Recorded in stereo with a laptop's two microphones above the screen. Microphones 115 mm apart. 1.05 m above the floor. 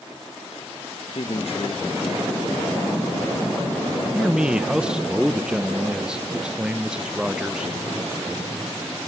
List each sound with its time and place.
1.1 s a man speaking: 55° left (ahead or behind), 1.1 m; by 4.0 s 5° right (ahead or behind), 3.5 m
4.1 s a man speaking: 5° right (ahead or behind), 0.9 m